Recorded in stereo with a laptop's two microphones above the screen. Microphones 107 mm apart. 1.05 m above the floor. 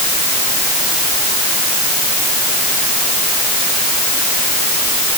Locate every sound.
Only background noise.